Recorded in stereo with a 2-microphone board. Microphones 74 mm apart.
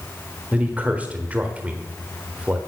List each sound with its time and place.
0.5 s a man speaking: 20° right (ahead or behind), 1.4 m